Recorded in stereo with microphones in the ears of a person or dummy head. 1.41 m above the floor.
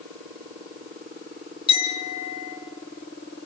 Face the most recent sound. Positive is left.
turn(degrees=30)  # may be behind; listen again after turning